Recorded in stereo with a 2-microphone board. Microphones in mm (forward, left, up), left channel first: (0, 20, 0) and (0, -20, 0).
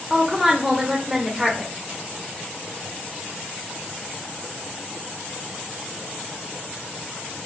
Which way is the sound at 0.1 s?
5° right (ahead or behind).